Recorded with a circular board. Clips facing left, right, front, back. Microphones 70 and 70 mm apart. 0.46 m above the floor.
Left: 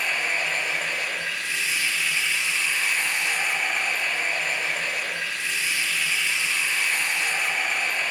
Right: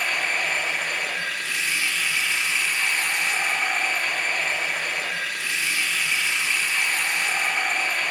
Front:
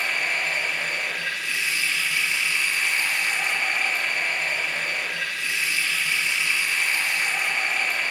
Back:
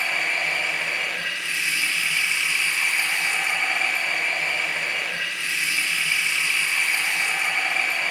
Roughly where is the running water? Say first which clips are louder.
Right 1 dB, back 1 dB; behind right.